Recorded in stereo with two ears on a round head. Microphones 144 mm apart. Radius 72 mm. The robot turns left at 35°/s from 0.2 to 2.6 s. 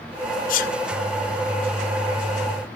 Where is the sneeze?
55° left (ahead or behind), 1.5 m; by 0.7 s 65° left (ahead or behind), 1.5 m.